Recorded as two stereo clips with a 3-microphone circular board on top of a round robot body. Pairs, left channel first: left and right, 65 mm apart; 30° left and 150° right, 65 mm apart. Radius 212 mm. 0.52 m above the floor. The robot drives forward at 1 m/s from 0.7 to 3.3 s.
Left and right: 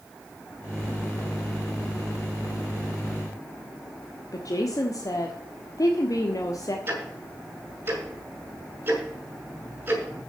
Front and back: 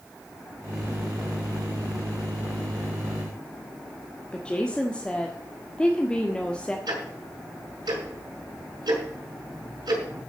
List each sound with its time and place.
4.3 s a woman speaking: 105° left, 1.6 m
6.9 s ticking: 150° right, 6.5 m